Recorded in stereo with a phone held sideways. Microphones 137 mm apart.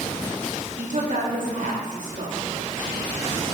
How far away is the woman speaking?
About 2.0 m.